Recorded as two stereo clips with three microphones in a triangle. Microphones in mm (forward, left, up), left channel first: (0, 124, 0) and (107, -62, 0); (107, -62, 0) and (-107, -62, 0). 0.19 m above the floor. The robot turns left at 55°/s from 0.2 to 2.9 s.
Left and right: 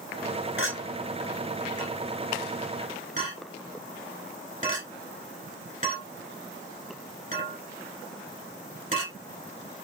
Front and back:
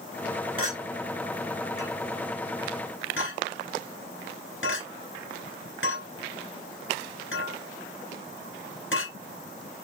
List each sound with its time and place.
0.6 s a clink: 120° left, 1.4 m; by 9.1 s 10° right, 1.4 m